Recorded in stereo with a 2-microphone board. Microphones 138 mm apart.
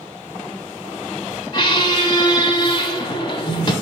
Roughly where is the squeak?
Left.